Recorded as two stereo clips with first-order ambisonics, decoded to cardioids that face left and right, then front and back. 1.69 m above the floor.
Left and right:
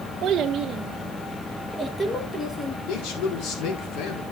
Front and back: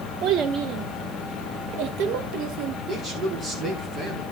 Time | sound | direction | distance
0.2 | a child speaking | 145° right | 1.4 m
2.9 | a man speaking | 115° left | 5.5 m